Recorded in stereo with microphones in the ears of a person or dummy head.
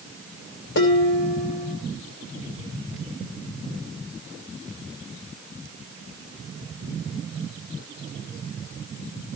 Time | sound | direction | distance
0.8 | dishes clattering | 65° left (ahead or behind) | 3 m